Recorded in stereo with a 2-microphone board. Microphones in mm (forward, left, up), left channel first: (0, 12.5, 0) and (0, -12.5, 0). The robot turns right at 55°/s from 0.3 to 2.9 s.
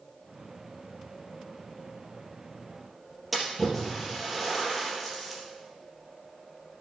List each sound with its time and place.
3.3 s a splash: 5° right (ahead or behind), 3.5 m